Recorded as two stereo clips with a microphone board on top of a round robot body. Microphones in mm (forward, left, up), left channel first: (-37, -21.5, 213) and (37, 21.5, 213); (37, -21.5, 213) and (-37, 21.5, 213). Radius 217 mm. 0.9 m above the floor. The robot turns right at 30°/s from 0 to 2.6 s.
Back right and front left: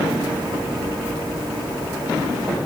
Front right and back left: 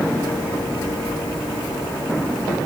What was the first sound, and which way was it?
Only background noise.